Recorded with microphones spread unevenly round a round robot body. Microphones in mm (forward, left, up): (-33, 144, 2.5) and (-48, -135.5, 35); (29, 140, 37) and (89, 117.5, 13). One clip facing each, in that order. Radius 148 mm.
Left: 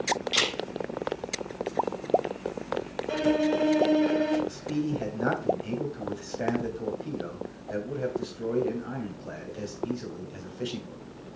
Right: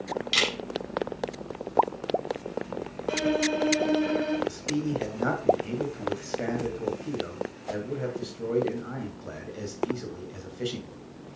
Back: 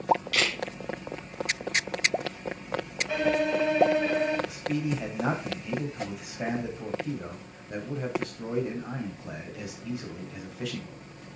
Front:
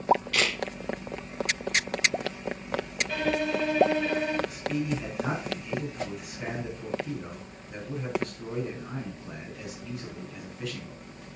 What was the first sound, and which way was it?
A camera shutter, 145° right.